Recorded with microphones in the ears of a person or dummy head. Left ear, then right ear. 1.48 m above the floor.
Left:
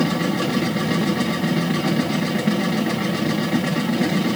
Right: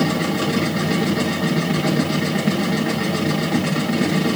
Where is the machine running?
Centre (ahead or behind), 1.4 m.